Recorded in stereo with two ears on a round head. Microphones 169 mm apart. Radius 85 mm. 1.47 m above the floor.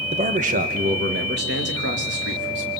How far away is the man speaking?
About 1.7 m.